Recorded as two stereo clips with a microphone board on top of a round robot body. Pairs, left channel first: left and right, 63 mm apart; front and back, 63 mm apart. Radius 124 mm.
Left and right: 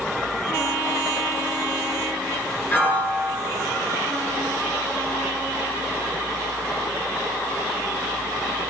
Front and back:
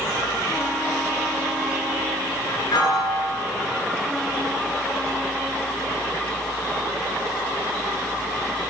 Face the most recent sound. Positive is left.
turn(degrees=25)